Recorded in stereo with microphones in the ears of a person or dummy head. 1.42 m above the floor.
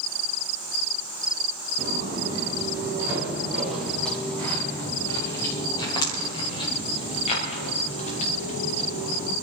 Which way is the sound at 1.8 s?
25° right (ahead or behind).